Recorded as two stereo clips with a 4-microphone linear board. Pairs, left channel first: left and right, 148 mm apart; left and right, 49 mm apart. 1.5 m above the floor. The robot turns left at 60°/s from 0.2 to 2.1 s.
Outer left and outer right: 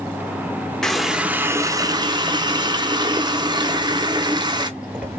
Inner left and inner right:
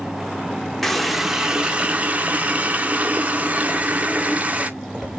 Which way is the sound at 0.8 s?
10° left.